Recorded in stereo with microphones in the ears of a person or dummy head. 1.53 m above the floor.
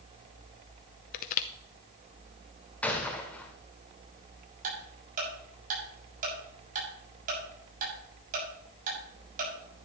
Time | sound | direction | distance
1.1 | crushing | 50° left (ahead or behind) | 0.7 m
2.8 | a gunshot | 5° left (ahead or behind) | 1.7 m
4.6 | ticking | 50° right (ahead or behind) | 7 m